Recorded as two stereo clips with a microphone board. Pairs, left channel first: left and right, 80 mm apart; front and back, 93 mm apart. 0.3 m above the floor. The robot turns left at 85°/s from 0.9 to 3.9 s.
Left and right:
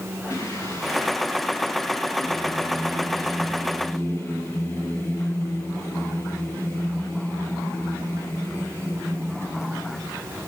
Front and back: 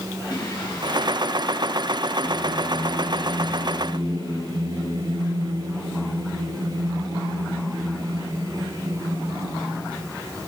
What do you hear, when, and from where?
0.3 s singing: 35° left, 3 m; by 10.1 s 140° left, 3 m